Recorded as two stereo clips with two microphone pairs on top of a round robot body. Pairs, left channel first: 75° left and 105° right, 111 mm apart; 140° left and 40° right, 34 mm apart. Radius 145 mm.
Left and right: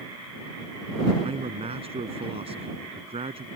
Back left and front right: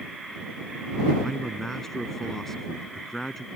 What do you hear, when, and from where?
1.2 s a man speaking: 145° right